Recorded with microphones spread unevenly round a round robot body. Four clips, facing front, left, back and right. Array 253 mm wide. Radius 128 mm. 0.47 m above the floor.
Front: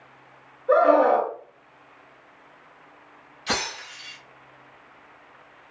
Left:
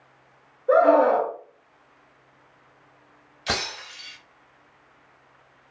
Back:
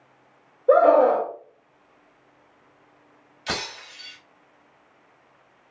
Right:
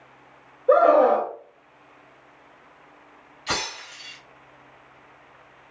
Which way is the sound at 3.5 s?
110° left.